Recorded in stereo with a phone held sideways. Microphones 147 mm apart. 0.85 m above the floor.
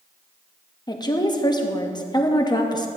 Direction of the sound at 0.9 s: 30° left (ahead or behind).